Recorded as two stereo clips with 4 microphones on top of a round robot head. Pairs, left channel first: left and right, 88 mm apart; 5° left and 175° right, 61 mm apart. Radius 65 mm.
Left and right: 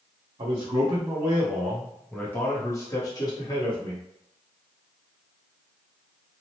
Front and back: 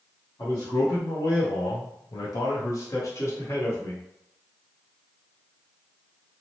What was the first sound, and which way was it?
A man speaking, 55° right.